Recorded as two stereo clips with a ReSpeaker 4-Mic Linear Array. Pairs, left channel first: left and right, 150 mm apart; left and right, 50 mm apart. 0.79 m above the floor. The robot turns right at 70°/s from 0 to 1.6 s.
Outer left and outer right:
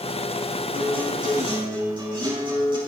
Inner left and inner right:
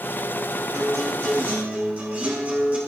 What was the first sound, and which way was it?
A guitar, 95° right.